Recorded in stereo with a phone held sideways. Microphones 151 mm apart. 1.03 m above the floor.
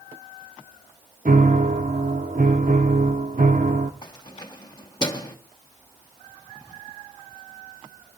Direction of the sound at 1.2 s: 65° right (ahead or behind).